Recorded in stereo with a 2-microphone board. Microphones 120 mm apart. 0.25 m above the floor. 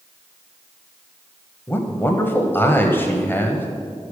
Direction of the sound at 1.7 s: 20° left (ahead or behind).